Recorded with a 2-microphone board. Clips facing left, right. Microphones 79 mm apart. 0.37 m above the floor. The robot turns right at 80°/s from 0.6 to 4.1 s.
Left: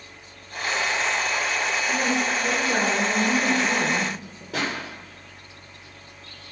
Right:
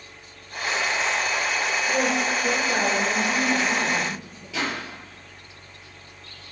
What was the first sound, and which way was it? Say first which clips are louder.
A woman speaking: right 2 dB; 25° right.